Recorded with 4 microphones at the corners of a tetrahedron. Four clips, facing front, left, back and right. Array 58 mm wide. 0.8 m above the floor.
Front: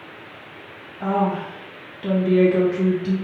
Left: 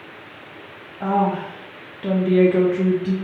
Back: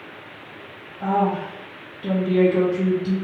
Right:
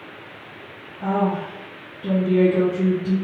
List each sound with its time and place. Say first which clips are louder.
1.0 s a woman speaking: left 2 dB, even; 85° left, 0.6 m